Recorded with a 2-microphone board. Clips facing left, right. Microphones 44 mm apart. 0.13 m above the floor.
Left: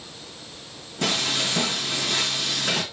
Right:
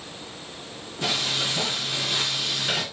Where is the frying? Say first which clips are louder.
Left 2 dB; 60° left (ahead or behind), 3.5 m.